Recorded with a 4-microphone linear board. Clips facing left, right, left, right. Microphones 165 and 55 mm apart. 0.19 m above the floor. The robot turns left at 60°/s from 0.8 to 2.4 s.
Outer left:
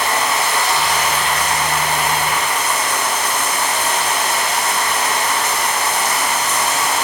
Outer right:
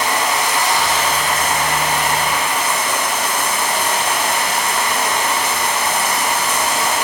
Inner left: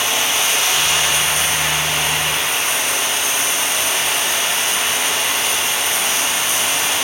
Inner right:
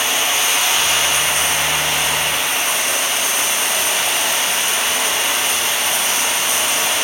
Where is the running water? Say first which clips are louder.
Even, even; 20° right, 1.7 m; by 7.0 s 115° right, 1.7 m.